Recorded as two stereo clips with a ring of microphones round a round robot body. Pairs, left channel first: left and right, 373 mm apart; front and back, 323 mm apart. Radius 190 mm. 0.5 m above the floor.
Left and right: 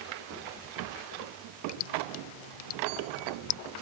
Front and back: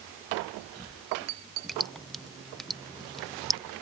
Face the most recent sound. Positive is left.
turn(degrees=90)